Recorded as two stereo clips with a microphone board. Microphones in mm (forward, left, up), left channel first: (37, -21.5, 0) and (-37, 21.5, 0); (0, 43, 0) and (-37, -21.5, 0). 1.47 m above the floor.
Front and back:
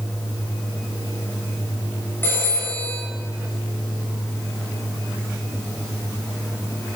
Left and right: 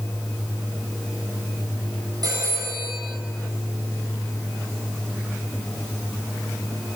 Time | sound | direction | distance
2.2 | a phone ringing | 95° right | 6 m